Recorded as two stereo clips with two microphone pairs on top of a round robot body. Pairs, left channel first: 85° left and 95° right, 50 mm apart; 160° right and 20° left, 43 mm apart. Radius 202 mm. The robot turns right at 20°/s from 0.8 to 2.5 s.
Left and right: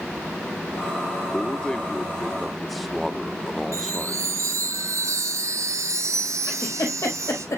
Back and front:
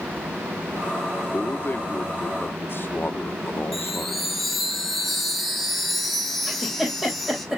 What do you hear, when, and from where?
1.3 s a man speaking: 155° left, 1.3 m; by 4.3 s straight behind, 1.3 m
3.7 s a chime: 75° right, 1.0 m
6.5 s a giggle: 100° left, 5 m